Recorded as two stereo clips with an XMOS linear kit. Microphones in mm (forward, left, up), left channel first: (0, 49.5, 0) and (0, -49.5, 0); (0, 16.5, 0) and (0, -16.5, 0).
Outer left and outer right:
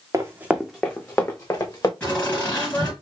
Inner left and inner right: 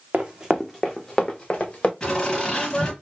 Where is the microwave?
I don't hear a microwave.